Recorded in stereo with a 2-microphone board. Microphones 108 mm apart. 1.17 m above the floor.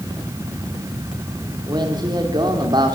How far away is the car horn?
I don't hear a car horn.